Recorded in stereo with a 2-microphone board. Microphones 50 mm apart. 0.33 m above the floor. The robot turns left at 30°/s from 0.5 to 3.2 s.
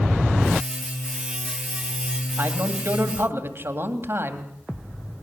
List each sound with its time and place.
2.4 s a man speaking: 50° right (ahead or behind), 2 m; by 4.5 s 55° right (ahead or behind), 2 m